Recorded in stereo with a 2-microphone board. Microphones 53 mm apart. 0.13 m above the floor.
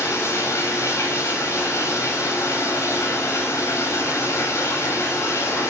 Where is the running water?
70° left (ahead or behind), 6 m.